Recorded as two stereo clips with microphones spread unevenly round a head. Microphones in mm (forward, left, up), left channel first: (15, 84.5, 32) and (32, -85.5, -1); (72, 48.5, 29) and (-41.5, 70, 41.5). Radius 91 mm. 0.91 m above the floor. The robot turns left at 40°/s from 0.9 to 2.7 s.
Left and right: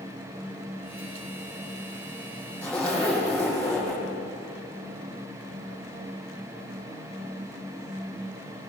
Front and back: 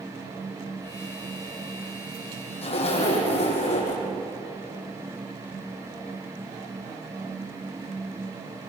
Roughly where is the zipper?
Ahead.